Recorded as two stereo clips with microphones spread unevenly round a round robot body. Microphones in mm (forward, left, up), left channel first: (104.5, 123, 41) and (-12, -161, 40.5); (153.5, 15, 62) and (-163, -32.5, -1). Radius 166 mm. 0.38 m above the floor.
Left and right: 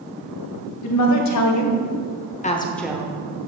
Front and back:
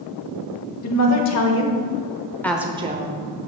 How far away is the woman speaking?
About 1.7 m.